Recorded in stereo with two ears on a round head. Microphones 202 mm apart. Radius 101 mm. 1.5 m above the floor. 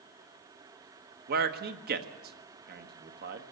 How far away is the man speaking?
About 1.5 m.